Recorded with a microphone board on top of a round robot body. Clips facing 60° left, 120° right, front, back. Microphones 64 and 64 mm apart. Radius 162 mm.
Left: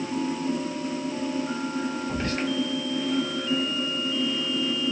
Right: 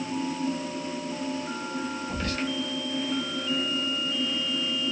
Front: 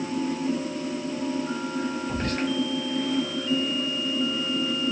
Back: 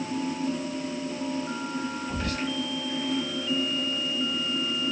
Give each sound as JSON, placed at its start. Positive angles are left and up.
{"t": 2.1, "sound": "whispering", "azimuth_deg": 10, "distance_m": 1.1}